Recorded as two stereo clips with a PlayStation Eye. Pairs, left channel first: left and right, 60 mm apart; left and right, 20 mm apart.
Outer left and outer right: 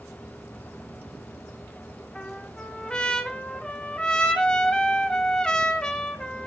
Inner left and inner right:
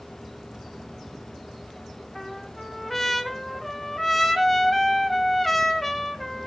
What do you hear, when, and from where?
2.1 s a trumpet: 10° left (ahead or behind), 0.8 m